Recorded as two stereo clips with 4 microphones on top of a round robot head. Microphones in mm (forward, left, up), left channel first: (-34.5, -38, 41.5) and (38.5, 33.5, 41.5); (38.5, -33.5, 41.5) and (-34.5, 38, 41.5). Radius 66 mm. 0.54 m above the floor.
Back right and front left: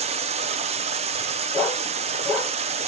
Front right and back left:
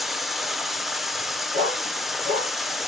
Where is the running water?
45° left, 0.8 m.